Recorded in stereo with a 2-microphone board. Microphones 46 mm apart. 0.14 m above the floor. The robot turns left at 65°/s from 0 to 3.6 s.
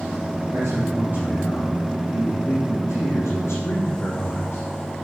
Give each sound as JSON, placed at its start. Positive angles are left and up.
{"t": 0.5, "sound": "a man speaking", "azimuth_deg": -110, "distance_m": 4.5}